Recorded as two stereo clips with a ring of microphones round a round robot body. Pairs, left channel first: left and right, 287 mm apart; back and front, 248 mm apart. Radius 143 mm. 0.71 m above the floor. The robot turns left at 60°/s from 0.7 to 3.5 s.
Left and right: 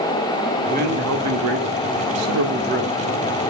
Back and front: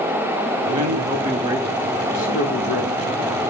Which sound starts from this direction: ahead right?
A man speaking, at 0.7 s.